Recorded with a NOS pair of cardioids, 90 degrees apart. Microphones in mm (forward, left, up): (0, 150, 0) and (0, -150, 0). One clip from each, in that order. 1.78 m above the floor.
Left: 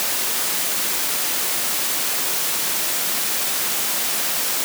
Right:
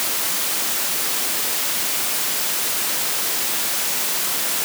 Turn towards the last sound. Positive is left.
No sound to turn to.